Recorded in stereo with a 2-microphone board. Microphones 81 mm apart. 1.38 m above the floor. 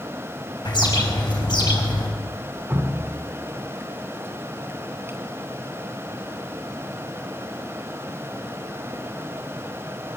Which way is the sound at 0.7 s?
65° left (ahead or behind).